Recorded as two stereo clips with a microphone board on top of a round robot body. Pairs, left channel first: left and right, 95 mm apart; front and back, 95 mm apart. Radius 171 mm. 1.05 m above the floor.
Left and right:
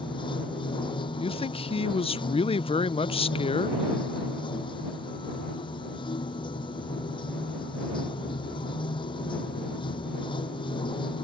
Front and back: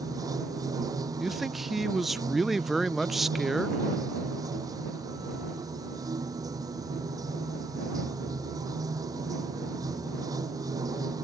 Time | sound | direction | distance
0.0 | running water | 125° left | ?
1.2 | a man speaking | 90° left | ?